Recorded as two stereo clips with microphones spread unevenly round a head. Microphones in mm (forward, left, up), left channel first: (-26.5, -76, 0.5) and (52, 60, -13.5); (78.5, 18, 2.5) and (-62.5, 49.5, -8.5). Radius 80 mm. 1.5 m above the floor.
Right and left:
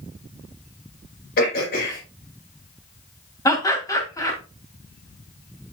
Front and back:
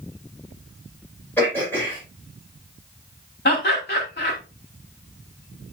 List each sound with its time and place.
1.4 s throat clearing: 90° right, 5 m
3.5 s laughter: 50° right, 4.5 m